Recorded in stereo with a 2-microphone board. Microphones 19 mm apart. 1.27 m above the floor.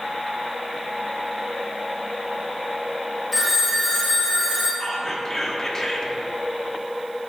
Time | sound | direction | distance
3.3 | a phone ringing | 5° left (ahead or behind) | 1.7 m
4.8 | whispering | 25° left (ahead or behind) | 1.3 m